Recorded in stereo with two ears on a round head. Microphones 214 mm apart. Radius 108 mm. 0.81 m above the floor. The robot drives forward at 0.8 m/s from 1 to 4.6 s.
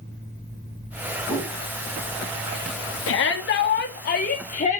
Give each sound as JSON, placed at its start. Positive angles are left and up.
{"t": 1.3, "sound": "a whoosh", "side_deg": -5, "distance_m": 4.0}
{"t": 3.1, "sound": "a shout", "side_deg": 55, "distance_m": 1.4}